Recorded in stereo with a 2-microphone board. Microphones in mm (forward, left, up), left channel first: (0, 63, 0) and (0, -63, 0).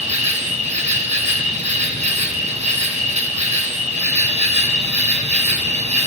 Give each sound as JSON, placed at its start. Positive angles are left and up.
{"t": 0.0, "sound": "an insect", "side_deg": -70, "distance_m": 1.7}